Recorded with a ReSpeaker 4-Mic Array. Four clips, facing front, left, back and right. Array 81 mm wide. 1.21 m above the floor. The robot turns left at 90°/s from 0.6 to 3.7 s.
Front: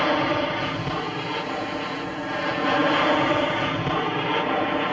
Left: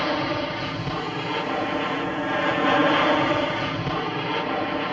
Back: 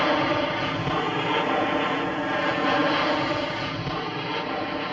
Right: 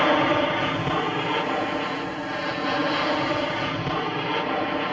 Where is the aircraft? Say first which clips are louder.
Right 5 dB, even; 85° right; by 4.9 s 5° right.